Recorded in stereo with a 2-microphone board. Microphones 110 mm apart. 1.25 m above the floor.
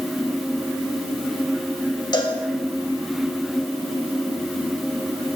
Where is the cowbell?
40° left (ahead or behind), 1.3 m.